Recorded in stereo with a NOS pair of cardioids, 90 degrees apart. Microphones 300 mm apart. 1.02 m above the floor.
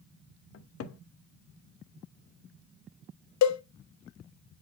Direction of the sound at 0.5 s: 50° left.